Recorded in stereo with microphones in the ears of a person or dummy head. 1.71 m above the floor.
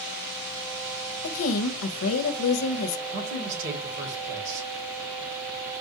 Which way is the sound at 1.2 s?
75° left (ahead or behind).